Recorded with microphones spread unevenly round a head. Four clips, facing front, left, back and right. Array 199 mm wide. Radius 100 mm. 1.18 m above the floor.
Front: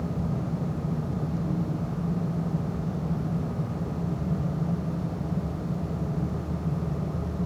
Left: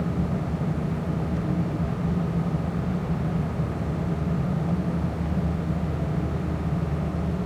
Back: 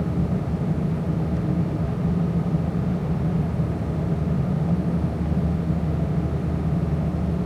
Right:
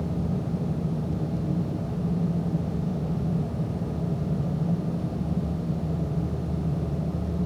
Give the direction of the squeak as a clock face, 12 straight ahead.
No squeak in this recording.